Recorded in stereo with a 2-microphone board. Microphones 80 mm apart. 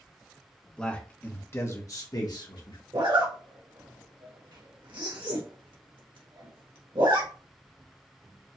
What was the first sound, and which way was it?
A man speaking, 10° left (ahead or behind).